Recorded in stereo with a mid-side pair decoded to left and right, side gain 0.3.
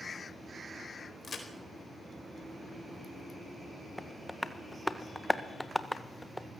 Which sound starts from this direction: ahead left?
A crack, at 1.2 s.